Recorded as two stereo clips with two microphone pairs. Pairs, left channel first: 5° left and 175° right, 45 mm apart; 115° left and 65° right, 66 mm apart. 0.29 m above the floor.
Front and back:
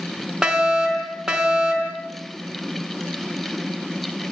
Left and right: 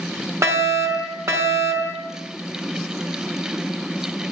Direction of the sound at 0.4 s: 100° right.